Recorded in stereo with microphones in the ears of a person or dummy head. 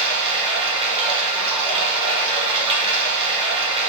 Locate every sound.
0.0 s running water: 30° right (ahead or behind), 1.7 m